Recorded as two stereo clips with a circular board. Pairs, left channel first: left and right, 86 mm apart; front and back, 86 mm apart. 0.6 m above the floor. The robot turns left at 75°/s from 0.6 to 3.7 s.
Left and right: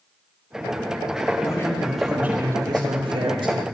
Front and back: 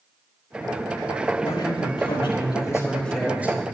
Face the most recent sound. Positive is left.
turn(degrees=-125)